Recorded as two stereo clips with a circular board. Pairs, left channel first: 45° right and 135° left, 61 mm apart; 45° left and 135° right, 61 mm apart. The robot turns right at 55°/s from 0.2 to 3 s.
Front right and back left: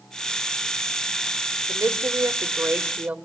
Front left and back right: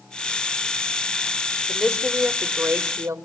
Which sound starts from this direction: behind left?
A woman speaking, at 1.7 s.